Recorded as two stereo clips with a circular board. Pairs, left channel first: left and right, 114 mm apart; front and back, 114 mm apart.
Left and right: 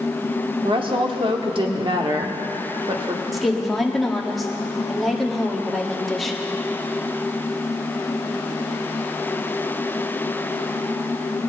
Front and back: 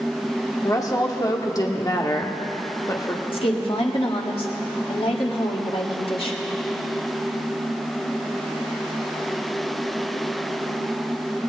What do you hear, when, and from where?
0.6 s a woman speaking: 55° right, 1.2 m
3.3 s a woman speaking: straight ahead, 1.6 m